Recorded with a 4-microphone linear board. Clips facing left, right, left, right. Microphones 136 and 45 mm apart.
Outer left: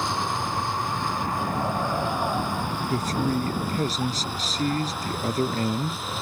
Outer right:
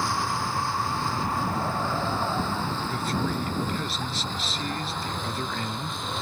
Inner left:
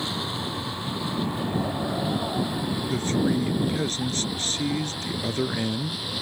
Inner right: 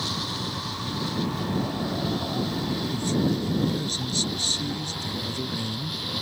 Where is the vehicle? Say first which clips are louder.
Outer left 1 dB, inner left 1 dB; 20° left (ahead or behind); by 6.2 s 5° left (ahead or behind).